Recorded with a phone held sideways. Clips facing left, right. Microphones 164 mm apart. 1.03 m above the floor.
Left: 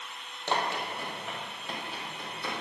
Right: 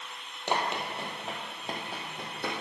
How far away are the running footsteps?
About 2 m.